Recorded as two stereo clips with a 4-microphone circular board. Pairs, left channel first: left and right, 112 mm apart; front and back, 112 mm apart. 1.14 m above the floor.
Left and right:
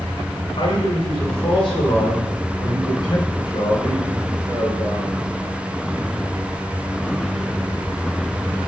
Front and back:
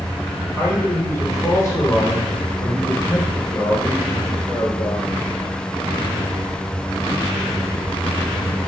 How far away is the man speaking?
About 3.5 m.